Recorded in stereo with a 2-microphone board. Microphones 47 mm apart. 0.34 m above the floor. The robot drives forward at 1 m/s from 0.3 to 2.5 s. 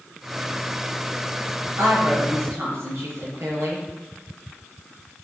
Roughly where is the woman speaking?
Right.